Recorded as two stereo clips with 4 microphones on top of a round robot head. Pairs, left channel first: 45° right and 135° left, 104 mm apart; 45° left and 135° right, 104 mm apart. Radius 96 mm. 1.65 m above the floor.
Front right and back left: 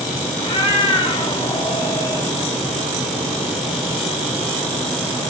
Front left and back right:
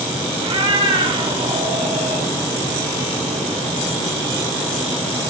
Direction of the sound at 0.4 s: 90° right.